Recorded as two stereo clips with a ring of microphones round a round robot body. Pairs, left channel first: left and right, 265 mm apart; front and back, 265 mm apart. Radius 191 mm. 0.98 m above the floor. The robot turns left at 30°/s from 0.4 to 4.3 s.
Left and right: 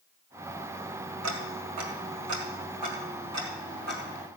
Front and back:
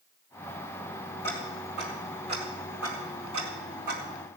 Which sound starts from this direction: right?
Ticking, at 1.2 s.